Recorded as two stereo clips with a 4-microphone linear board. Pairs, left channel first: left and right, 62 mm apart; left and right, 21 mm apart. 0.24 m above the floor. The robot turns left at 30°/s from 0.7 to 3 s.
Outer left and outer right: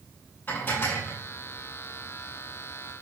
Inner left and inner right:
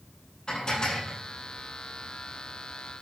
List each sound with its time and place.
0.5 s dishes clattering: 35° left (ahead or behind), 5.5 m; by 1.2 s 50° left (ahead or behind), 5.5 m